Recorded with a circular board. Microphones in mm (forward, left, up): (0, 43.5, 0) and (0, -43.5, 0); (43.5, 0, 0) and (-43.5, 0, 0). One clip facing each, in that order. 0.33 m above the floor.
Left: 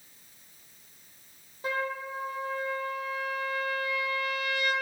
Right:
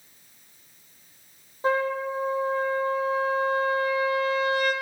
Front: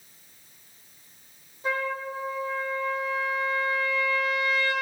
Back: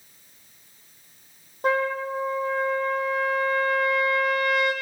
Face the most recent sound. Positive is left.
turn(degrees=-150)